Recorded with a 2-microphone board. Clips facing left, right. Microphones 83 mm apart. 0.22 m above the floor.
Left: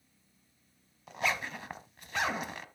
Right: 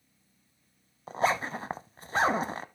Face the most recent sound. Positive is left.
turn(degrees=-35)  # may be behind; listen again after turning